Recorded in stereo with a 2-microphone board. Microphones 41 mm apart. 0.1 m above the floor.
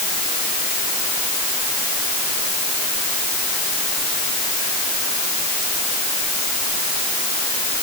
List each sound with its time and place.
Only background noise.